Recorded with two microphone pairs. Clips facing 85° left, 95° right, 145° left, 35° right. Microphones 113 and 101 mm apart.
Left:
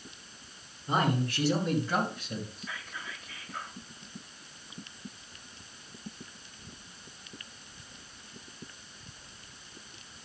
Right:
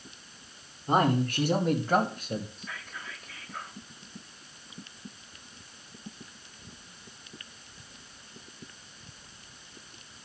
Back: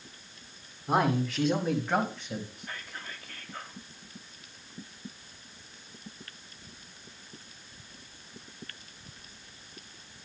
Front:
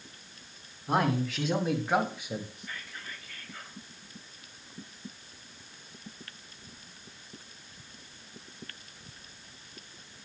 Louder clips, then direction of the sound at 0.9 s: Right 4 dB, back 1 dB; 125° right.